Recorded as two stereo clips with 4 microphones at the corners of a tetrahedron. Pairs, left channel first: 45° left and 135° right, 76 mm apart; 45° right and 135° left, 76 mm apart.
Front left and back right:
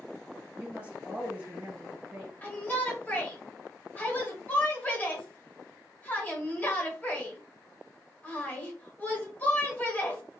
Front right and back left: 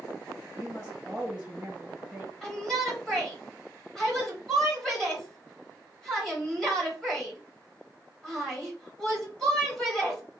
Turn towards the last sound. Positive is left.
turn(degrees=30)